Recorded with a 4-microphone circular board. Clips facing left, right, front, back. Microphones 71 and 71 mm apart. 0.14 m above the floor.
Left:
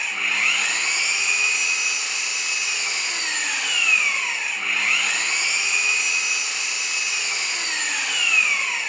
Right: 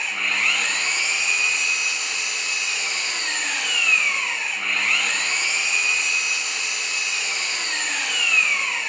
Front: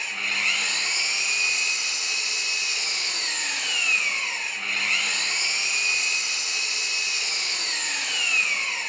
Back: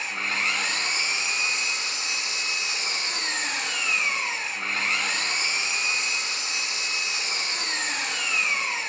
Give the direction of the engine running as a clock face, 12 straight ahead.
6 o'clock.